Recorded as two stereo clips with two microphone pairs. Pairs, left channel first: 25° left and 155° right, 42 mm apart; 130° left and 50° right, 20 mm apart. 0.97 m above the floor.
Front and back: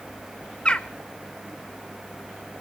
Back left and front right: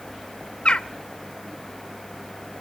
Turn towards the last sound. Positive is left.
turn(degrees=95)